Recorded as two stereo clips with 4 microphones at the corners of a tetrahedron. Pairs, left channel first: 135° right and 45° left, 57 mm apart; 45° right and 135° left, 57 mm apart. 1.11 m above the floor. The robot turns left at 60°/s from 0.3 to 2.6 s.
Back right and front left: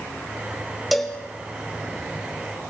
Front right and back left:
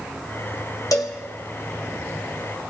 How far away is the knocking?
I don't hear knocking.